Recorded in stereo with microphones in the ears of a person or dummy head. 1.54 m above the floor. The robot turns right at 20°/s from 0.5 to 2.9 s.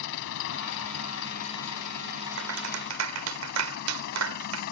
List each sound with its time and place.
0.0 s an engine running: 75° left; by 4.7 s 125° left
2.4 s a clap: 75° right (ahead or behind); by 4.6 s 85° right